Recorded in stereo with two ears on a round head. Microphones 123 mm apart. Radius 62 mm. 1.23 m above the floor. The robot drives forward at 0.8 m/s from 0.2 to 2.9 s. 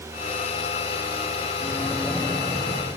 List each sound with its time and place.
1.6 s a microwave: 15° left (ahead or behind), 0.7 m; by 2.9 s 5° left (ahead or behind), 1.7 m